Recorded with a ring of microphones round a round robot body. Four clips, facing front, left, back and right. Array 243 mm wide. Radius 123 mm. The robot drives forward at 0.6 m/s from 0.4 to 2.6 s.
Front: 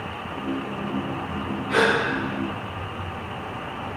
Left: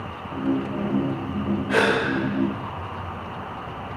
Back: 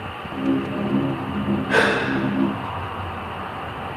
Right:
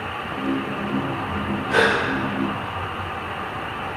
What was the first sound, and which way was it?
A gasp, 170° left.